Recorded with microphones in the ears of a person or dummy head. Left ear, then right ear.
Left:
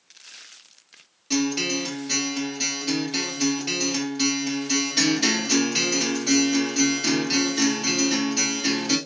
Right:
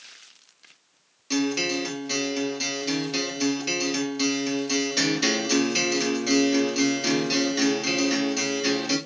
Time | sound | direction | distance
1.3 | a guitar | 10° right (ahead or behind) | 1.8 m